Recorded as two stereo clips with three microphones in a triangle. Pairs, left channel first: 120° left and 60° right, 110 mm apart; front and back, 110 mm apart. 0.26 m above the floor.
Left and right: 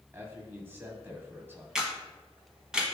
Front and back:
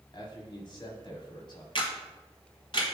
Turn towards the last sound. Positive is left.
turn(degrees=20)